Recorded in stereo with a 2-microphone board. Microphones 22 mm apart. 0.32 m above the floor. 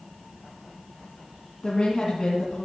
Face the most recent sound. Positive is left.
turn(degrees=30)  # may be behind; listen again after turning